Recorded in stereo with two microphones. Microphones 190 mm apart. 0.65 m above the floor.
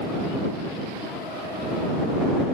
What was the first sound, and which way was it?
Only background noise.